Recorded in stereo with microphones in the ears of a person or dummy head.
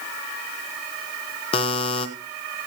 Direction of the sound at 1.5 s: 25° left (ahead or behind).